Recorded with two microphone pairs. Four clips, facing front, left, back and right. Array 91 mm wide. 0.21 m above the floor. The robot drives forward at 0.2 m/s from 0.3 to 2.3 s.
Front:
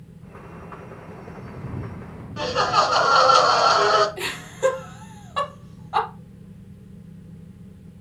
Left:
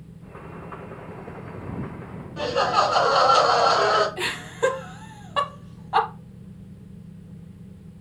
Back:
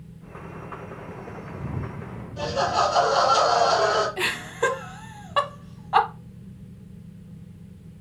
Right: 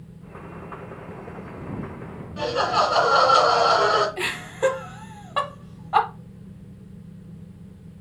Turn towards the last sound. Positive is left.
turn(degrees=-165)